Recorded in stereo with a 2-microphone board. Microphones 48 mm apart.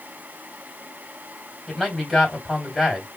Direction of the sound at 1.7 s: 5° left (ahead or behind).